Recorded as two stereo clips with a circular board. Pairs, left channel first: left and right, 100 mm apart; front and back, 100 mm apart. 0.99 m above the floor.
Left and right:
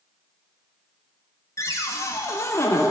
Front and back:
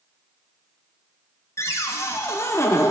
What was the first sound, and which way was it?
A cupboard door, 45° left.